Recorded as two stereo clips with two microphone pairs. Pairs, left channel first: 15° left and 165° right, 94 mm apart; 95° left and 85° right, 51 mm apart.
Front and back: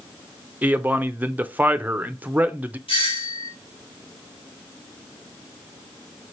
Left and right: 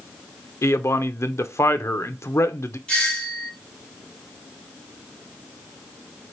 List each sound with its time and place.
0.6 s a man speaking: 125° left, 0.5 m
2.9 s a doorbell: 20° left, 1.8 m